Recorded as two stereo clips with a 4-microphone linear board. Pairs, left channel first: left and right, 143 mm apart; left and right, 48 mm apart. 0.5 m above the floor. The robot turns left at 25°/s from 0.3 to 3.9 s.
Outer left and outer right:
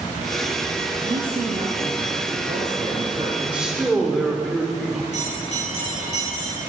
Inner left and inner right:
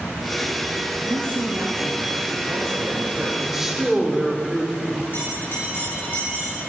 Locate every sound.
1.0 s a man speaking: 65° right, 2.5 m; by 3.3 s 125° right, 2.5 m
3.4 s a man speaking: 10° right (ahead or behind), 1.8 m; by 5.0 s centre (ahead or behind), 1.8 m
5.1 s a bell: 55° left (ahead or behind), 4.5 m